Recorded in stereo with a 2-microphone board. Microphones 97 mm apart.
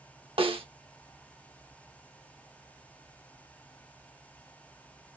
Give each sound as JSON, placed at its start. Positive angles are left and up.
{"t": 0.4, "sound": "a snare drum", "side_deg": -65, "distance_m": 1.3}